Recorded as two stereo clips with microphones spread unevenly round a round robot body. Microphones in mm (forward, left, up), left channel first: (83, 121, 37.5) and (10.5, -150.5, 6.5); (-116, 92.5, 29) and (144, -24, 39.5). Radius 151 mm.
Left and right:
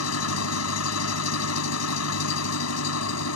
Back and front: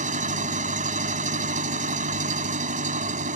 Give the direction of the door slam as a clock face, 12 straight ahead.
No door slam in this recording.